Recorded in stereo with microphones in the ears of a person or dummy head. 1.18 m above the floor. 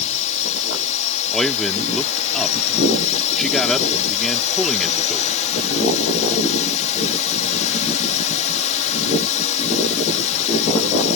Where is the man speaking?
5° left (ahead or behind).